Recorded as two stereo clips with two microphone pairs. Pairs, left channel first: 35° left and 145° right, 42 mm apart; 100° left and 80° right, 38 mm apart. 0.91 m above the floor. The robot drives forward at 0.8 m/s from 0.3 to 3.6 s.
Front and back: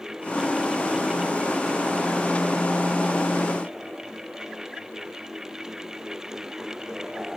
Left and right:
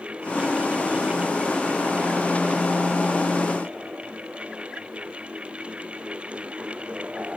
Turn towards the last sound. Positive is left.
No sound to turn to.